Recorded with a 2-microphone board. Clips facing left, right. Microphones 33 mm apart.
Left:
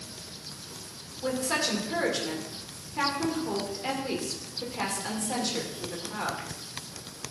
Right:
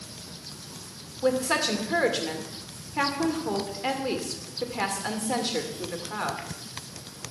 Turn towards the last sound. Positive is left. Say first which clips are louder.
# right 4 dB
turn(degrees=-25)  # may be behind; listen again after turning